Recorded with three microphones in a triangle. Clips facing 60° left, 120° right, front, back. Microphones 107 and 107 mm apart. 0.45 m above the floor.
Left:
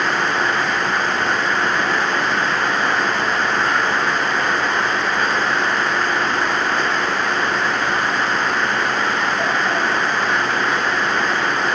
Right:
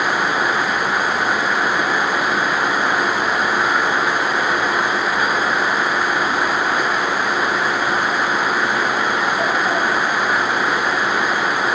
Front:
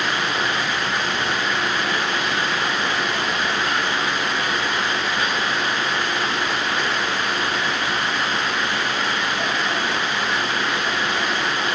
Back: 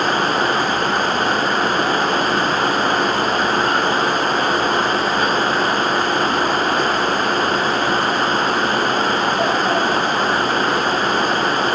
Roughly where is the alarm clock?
I don't hear an alarm clock.